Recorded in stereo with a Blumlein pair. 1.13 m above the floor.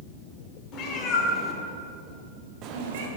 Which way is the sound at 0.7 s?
35° left.